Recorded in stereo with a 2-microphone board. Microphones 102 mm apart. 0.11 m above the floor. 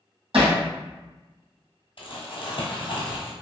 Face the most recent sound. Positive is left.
turn(degrees=60)  # may be behind; listen again after turning